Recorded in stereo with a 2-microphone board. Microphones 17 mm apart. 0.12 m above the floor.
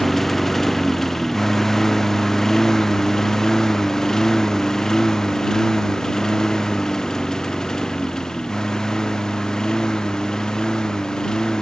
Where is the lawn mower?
20° left (ahead or behind); by 11.6 s 50° left (ahead or behind).